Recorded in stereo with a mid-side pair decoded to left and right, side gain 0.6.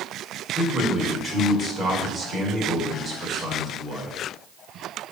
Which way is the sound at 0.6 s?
25° right.